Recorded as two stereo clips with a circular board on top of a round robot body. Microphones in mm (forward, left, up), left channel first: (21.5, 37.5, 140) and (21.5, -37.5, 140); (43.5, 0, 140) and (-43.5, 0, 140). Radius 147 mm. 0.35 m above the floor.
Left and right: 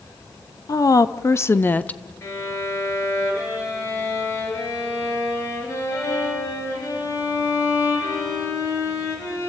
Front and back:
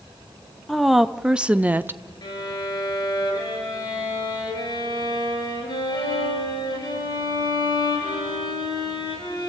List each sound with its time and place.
0.7 s a woman speaking: 90° left, 1.1 m; by 2.0 s 150° left, 0.8 m
2.2 s a violin: 40° left, 4.5 m